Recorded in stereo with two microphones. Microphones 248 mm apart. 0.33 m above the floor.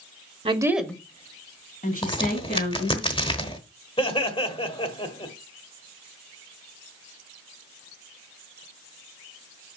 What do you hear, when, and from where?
0.5 s a woman speaking: 25° right (ahead or behind), 0.9 m; by 3.0 s 40° left (ahead or behind), 3 m
2.0 s a crack: 20° left (ahead or behind), 1.0 m
4.0 s laughter: 20° left (ahead or behind), 1.1 m